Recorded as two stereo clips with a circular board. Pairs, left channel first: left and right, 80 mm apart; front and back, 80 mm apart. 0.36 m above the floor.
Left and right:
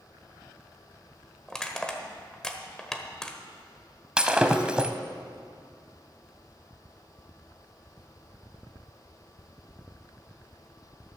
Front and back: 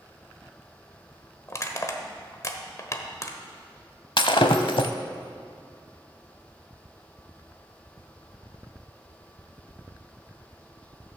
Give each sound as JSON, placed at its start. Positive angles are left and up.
{"t": 1.5, "sound": "crushing", "azimuth_deg": 15, "distance_m": 1.1}
{"t": 4.2, "sound": "breaking glass", "azimuth_deg": -10, "distance_m": 0.8}